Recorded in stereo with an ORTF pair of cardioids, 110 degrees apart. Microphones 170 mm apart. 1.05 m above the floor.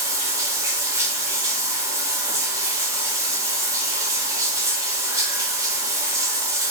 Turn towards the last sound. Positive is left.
turn(degrees=-20)